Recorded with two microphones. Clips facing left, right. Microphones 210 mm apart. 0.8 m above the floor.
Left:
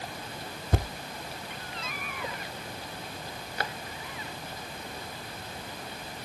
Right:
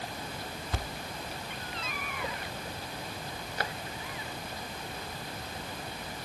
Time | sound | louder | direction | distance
0.7 | a thud | left 9 dB | 50° left (ahead or behind) | ?